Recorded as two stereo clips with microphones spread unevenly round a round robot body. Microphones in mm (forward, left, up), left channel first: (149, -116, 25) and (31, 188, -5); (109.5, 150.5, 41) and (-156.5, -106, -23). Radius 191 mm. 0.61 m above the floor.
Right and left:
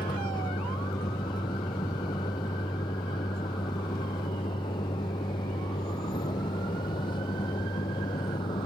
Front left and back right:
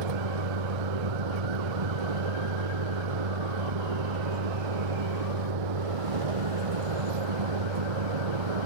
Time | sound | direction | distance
0.0 | a vehicle | 150° right | ?